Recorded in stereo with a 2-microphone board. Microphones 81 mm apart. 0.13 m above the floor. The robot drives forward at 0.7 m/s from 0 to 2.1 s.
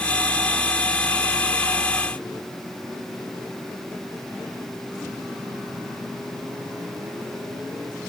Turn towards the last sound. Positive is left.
No sound to turn to.